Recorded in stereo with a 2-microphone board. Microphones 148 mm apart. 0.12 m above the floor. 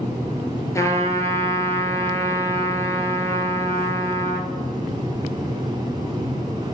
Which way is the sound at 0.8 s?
20° left (ahead or behind).